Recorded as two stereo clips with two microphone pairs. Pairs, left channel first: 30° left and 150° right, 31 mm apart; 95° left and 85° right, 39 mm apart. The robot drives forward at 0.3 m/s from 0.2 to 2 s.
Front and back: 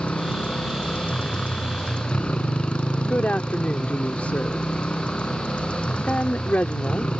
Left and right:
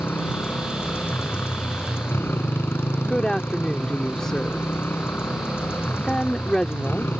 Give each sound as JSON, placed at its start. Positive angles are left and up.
{"t": 0.0, "sound": "a motorcycle", "azimuth_deg": 75}
{"t": 3.0, "sound": "a woman speaking", "azimuth_deg": 25}